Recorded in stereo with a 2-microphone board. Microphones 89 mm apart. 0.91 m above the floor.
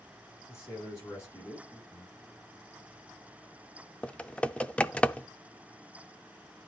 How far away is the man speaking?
About 7 m.